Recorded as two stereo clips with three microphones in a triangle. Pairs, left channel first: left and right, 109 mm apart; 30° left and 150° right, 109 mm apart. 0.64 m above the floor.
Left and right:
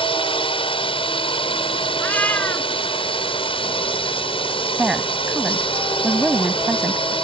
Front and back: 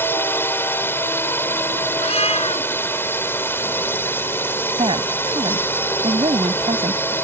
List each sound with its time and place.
0.0 s a drone: 95° left
2.0 s a cat meowing: 20° left
4.8 s a woman speaking: 170° right